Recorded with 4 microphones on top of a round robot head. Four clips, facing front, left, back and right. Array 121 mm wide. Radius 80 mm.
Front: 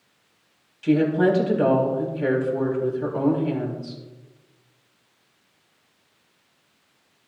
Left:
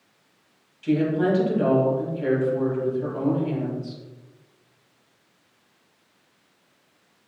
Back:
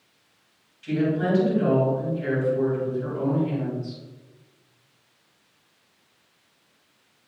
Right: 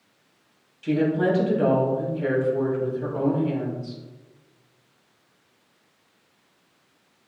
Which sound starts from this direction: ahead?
A woman speaking, at 0.8 s.